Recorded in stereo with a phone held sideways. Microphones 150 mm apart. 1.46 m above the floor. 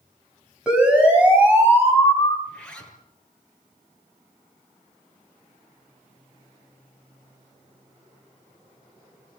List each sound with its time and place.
0.7 s a siren: 5° right (ahead or behind), 8 m; by 2.4 s 15° right (ahead or behind), 7.5 m
2.5 s a zipper: 10° left (ahead or behind), 6.5 m